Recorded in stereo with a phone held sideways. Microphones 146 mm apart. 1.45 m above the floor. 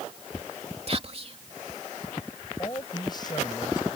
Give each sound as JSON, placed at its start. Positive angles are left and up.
{"t": 0.9, "sound": "whispering", "side_deg": -45}
{"t": 2.6, "sound": "a man speaking", "side_deg": 30}